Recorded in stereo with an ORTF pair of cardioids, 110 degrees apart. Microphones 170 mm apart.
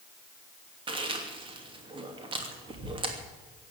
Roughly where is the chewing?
Ahead right.